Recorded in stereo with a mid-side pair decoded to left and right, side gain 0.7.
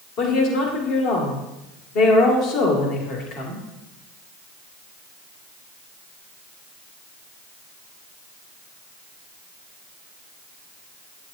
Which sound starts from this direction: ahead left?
A woman speaking, at 0.2 s.